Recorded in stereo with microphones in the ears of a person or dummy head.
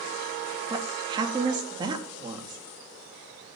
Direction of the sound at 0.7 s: 20° right (ahead or behind).